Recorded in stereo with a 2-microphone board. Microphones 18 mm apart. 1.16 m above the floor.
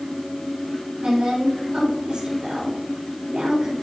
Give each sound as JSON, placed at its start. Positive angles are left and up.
{"t": 1.0, "sound": "a woman speaking", "side_deg": -55, "distance_m": 4.0}